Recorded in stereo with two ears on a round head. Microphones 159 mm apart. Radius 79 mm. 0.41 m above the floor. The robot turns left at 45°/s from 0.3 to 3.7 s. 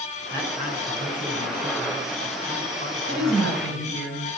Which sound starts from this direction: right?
A woman speaking, at 3.1 s.